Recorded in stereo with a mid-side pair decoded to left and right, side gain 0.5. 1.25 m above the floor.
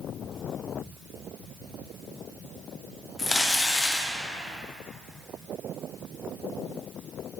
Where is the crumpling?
35° left, 0.5 m.